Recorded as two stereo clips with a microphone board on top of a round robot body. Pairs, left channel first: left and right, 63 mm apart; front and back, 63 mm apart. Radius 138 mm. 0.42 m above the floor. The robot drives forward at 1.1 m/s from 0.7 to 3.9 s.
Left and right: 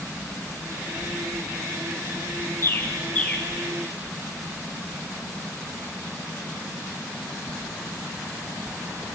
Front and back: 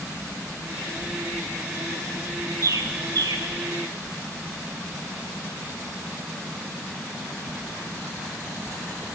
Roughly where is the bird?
Behind left.